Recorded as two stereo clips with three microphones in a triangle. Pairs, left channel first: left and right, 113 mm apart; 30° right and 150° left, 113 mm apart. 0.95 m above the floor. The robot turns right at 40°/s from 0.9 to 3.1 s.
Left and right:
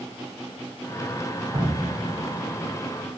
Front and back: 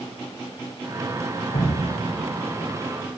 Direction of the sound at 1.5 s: 35° right.